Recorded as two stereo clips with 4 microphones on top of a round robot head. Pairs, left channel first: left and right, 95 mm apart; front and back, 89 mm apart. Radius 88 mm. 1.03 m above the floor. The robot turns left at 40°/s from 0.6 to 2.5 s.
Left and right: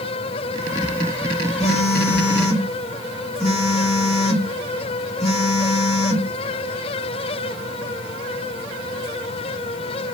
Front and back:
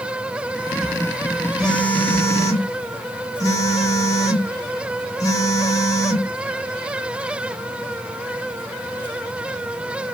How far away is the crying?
I don't hear crying.